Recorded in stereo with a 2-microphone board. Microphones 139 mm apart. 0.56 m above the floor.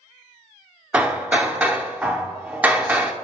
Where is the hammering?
10° right (ahead or behind), 0.6 m.